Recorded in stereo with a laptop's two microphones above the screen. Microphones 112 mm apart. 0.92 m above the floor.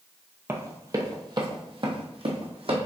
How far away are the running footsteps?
About 0.9 m.